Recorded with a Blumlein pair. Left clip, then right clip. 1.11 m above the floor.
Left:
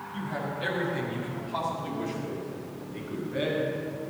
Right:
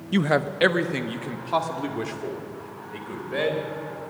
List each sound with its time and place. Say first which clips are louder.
0.1 s a man speaking: right 12 dB; 45° right, 0.6 m; by 3.7 s 55° right, 4.5 m